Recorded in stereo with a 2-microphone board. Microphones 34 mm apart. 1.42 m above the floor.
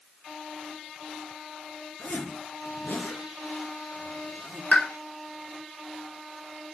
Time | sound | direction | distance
2.0 | a zipper | 65° left (ahead or behind) | 4 m
4.7 | a pop | 50° left (ahead or behind) | 3.5 m